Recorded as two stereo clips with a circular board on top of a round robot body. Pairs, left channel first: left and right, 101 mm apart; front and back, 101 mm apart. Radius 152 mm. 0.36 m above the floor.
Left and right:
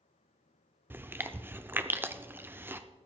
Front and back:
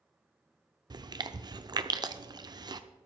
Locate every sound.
0.9 s chewing: 155° right, 0.9 m